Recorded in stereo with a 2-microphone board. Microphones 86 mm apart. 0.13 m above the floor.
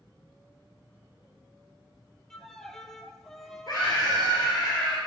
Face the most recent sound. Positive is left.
turn(degrees=55)  # may be behind; listen again after turning